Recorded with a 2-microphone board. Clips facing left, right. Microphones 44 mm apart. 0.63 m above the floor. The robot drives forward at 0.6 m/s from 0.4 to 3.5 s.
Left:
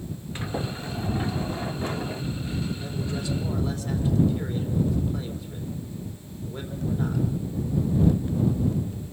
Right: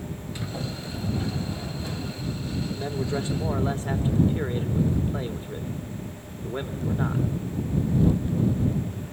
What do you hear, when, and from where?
0.3 s a sliding door: 35° left (ahead or behind), 2 m; by 2.2 s 50° left (ahead or behind), 1.6 m
2.7 s a man speaking: 35° right (ahead or behind), 2 m; by 7.2 s 30° right (ahead or behind), 2.5 m